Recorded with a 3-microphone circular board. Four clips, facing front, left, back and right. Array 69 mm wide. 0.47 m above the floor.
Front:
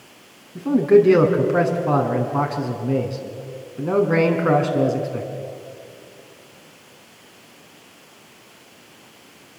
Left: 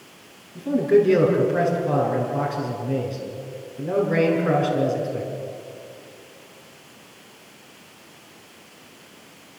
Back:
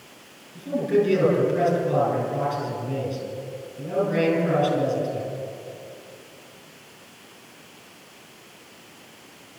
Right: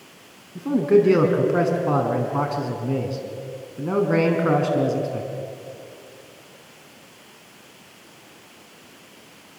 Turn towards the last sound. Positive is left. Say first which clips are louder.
# right 1 dB, front 8 dB
turn(degrees=-30)